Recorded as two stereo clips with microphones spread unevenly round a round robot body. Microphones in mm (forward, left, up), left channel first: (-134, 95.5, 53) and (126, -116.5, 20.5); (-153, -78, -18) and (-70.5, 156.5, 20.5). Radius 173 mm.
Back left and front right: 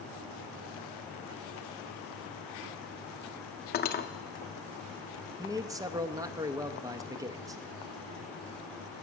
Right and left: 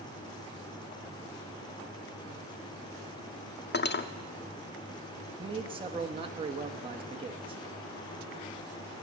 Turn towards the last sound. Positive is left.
turn(degrees=10)